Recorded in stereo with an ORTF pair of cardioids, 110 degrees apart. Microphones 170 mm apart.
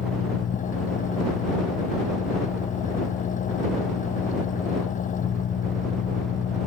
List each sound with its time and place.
0.0 s an engine running: 45° left